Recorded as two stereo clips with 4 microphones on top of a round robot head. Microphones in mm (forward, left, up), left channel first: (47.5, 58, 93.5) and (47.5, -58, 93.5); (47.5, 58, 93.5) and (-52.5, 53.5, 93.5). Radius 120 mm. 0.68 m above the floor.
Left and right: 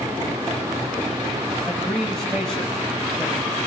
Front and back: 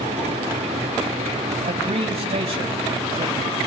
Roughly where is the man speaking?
Behind.